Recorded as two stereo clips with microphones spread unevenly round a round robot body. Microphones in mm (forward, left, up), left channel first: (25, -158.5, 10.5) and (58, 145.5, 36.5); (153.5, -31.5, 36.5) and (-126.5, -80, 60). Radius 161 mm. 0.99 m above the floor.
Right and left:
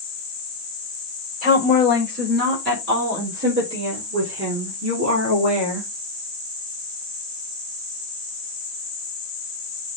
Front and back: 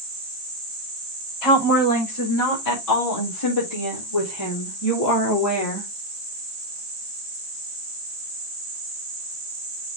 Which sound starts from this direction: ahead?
A woman speaking, at 1.4 s.